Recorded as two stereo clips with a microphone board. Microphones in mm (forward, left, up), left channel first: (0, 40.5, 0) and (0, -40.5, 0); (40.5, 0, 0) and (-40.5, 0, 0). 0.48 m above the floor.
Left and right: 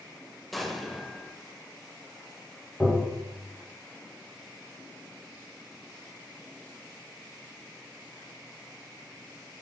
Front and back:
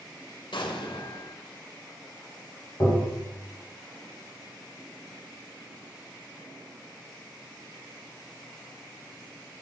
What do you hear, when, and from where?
0.5 s an explosion: straight ahead, 0.6 m
2.8 s tapping: 15° left, 2.5 m